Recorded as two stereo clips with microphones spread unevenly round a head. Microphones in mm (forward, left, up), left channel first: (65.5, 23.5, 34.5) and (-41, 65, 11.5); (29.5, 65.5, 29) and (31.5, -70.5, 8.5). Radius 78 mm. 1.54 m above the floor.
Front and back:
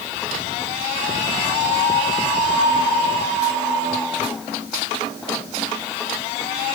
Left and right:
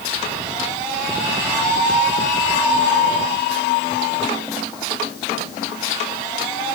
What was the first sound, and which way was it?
Only background noise.